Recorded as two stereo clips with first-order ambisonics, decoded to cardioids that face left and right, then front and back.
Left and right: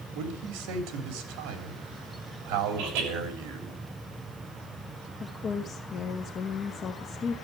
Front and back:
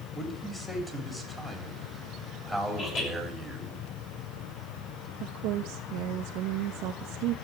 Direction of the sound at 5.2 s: 155° left.